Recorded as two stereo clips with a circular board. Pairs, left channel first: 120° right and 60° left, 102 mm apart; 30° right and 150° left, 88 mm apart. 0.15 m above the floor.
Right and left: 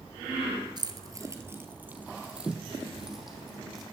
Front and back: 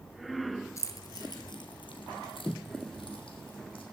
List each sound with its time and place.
0.8 s keys jangling: 20° left, 1.8 m; by 3.8 s 30° right, 5 m